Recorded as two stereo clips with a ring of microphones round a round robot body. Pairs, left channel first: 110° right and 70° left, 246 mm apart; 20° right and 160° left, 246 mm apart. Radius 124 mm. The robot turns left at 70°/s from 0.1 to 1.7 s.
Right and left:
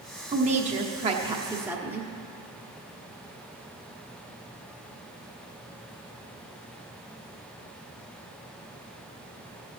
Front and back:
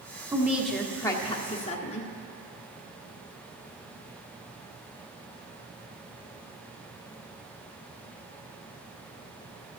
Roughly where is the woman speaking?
Left.